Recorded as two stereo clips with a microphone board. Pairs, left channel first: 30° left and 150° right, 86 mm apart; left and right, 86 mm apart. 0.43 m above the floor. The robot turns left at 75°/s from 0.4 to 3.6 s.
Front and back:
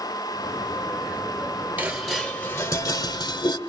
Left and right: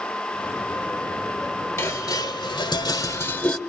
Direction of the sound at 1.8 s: 145° left.